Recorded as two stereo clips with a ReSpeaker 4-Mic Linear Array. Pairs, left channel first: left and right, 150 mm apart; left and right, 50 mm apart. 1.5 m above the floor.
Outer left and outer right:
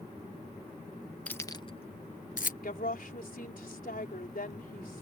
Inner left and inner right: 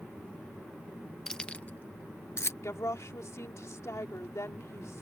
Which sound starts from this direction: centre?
Keys jangling, at 1.3 s.